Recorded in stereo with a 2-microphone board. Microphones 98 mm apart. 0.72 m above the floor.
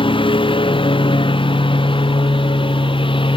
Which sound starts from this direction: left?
A lawn mower, at 0.0 s.